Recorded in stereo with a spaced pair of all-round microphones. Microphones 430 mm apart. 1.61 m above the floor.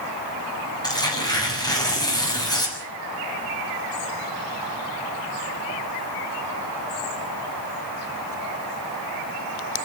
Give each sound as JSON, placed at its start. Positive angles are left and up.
{"t": 0.8, "sound": "tearing paper", "side_deg": 10, "distance_m": 6.5}